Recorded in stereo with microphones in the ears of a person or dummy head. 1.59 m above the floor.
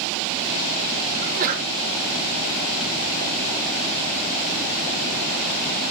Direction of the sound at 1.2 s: 35° right (ahead or behind).